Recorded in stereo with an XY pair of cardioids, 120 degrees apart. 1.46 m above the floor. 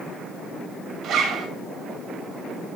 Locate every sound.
1.0 s a zipper: 70° right, 2 m